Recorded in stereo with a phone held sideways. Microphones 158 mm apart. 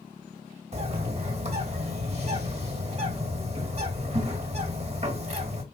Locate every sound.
0.7 s a bird: 40° right (ahead or behind), 1.3 m